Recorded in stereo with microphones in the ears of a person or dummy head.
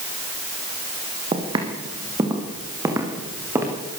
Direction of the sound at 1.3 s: 30° right (ahead or behind).